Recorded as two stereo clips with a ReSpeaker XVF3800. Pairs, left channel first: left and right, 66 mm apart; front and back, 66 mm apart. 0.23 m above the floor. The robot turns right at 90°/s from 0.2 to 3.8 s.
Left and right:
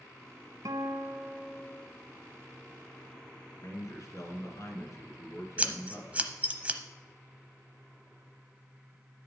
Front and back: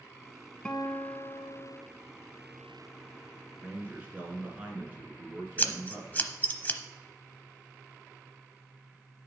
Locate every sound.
0.7 s a guitar: 75° right, 0.8 m; by 1.8 s 30° left, 0.8 m
3.6 s a man speaking: 95° left, 3 m; by 6.3 s 115° left, 3 m
5.6 s scissors: 40° right, 0.8 m